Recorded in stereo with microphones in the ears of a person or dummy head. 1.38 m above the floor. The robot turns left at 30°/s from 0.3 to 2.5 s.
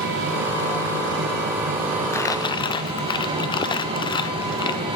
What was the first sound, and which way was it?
An engine running, 90° right.